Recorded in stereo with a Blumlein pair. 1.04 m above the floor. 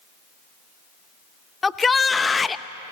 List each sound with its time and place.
1.6 s a shout: 10° left, 0.8 m